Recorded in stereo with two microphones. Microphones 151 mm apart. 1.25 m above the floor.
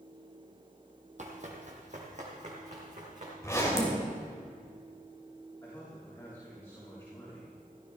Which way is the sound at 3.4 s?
20° left (ahead or behind).